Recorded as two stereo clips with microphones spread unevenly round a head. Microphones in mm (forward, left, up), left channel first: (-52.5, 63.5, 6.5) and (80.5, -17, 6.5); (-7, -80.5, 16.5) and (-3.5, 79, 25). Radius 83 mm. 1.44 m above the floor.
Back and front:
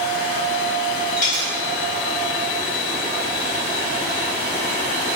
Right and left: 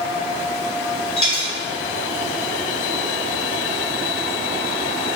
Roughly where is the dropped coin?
Ahead right.